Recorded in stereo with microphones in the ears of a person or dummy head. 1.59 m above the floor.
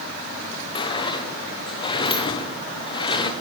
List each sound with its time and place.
0.8 s a sliding door: 25° left (ahead or behind), 0.7 m